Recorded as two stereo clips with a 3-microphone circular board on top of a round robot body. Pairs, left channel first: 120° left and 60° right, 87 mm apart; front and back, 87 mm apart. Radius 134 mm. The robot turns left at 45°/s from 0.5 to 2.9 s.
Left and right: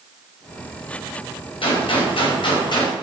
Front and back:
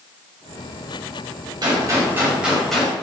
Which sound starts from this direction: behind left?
A gunshot, at 1.6 s.